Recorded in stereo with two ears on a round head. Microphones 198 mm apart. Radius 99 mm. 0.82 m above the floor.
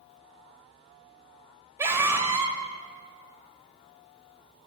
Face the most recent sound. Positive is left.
turn(degrees=-10)  # may be behind; listen again after turning